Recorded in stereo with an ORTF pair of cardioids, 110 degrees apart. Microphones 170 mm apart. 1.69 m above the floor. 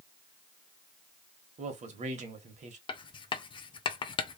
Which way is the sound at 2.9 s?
30° left.